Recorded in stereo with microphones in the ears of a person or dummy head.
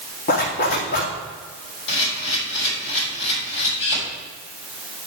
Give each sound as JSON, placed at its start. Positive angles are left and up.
{"t": 0.3, "sound": "a zipper", "side_deg": 40, "distance_m": 1.7}
{"t": 1.9, "sound": "a camera shutter", "side_deg": 60, "distance_m": 4.5}